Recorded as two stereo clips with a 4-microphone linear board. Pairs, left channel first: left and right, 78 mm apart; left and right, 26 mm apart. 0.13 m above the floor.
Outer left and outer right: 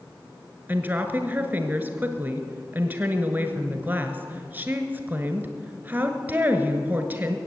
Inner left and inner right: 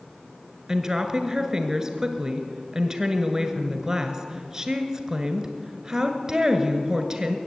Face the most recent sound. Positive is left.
turn(degrees=-25)  # may be behind; listen again after turning